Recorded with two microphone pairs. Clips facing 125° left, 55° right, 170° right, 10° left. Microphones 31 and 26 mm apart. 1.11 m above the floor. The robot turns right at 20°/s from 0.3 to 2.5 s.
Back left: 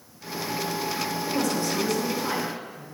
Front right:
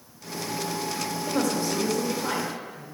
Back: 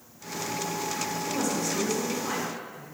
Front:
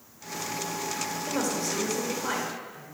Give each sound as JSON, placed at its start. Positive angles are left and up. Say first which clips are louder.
{"t": 1.3, "sound": "a woman speaking", "louder": "front right 1 dB, even", "azimuth_deg": -45, "distance_m": 1.8}